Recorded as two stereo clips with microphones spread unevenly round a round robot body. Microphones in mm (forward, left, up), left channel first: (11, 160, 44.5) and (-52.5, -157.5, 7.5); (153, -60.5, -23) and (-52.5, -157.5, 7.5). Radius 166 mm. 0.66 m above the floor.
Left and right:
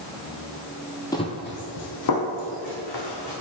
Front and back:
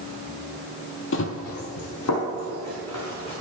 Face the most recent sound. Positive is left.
turn(degrees=65)